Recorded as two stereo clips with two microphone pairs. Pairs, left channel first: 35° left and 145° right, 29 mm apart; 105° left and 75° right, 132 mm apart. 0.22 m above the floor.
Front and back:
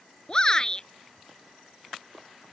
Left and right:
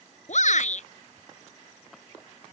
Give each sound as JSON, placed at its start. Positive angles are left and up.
{"t": 0.3, "sound": "a shout", "azimuth_deg": 95}